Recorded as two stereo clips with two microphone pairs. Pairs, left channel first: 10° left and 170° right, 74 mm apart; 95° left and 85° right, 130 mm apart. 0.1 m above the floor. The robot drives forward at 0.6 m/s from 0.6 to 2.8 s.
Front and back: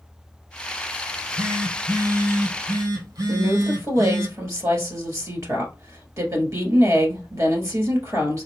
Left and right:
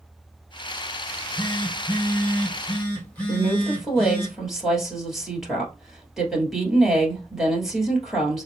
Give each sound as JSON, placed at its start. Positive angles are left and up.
{"t": 1.1, "sound": "a phone buzzing", "azimuth_deg": 155, "distance_m": 0.9}
{"t": 3.3, "sound": "a woman speaking", "azimuth_deg": -175, "distance_m": 1.5}